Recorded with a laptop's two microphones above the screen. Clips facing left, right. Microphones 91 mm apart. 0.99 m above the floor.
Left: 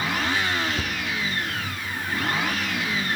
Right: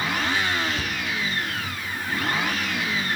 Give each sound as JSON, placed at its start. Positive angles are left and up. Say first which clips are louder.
{"t": 0.8, "sound": "a cupboard door", "louder": "even", "side_deg": 20, "distance_m": 1.1}